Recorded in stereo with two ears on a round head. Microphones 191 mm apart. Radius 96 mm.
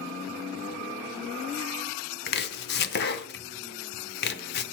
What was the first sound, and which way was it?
Chopping, 50° left (ahead or behind).